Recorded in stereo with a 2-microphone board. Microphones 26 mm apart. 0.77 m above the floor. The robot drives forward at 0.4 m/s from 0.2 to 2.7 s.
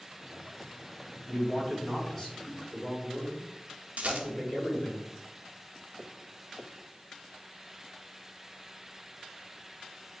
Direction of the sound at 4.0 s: 70° right (ahead or behind).